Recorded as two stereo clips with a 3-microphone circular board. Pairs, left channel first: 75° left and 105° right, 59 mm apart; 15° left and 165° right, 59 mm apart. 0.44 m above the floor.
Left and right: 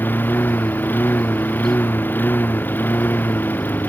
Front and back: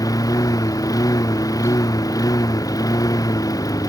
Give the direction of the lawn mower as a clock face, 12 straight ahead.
11 o'clock.